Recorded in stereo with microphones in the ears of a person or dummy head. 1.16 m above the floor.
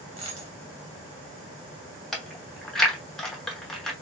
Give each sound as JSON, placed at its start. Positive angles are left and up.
{"t": 0.2, "sound": "a dropped coin", "side_deg": -30, "distance_m": 1.7}
{"t": 2.1, "sound": "chewing", "side_deg": 5, "distance_m": 1.0}